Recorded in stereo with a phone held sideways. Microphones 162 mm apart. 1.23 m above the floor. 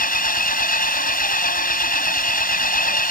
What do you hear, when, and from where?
0.0 s an engine running: 65° left (ahead or behind)